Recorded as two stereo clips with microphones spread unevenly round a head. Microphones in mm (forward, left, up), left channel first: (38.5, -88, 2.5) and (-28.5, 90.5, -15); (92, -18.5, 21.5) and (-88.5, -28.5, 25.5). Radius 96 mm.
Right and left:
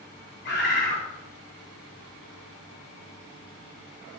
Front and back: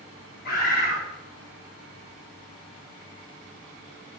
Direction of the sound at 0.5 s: 30° right.